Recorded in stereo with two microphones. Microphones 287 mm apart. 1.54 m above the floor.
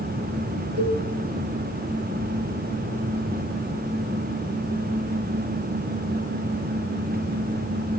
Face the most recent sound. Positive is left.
turn(degrees=-55)  # may be behind; listen again after turning